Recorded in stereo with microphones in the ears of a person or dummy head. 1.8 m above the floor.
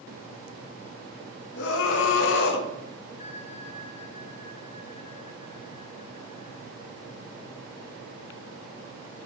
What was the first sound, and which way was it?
A scream, 65° left (ahead or behind).